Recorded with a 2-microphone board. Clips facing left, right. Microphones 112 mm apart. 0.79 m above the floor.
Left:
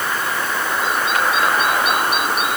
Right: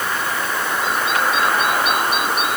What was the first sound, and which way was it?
Only background noise.